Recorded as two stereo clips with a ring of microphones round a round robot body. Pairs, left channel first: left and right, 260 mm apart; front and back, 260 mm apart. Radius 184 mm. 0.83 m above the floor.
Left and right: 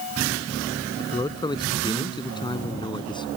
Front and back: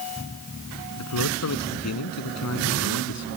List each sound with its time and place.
1.0 s a man speaking: 15° left